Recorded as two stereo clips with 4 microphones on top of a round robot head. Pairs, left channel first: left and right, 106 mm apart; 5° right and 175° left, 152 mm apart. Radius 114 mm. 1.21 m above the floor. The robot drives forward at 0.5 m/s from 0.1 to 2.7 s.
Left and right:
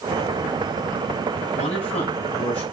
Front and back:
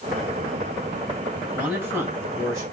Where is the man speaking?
100° left, 3 m; by 2.6 s 110° left, 3.5 m.